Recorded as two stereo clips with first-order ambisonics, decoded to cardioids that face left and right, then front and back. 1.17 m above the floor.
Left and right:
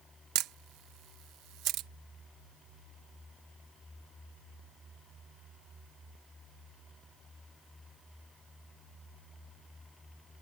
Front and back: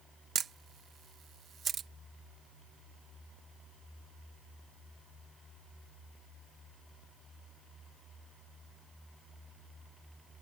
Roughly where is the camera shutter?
Behind right.